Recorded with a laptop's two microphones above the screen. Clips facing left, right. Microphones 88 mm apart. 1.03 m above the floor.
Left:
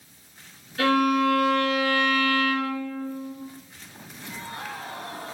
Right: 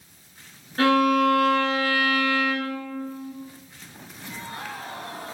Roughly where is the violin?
Right.